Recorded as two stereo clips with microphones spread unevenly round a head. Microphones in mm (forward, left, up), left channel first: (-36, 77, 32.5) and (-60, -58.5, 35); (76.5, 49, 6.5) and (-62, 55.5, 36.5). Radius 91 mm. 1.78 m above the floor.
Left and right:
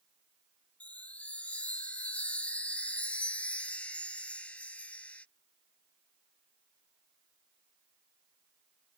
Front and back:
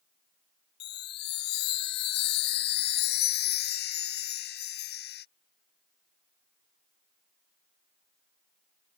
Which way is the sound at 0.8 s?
5° right.